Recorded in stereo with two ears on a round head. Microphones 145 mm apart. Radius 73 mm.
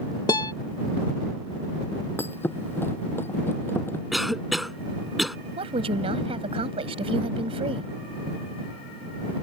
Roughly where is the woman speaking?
Right.